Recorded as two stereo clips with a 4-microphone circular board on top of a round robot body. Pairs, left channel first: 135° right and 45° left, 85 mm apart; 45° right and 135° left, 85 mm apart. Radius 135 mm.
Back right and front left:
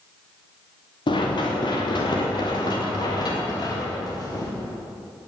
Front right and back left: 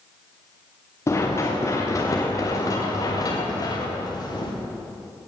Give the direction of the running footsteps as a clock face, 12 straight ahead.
3 o'clock.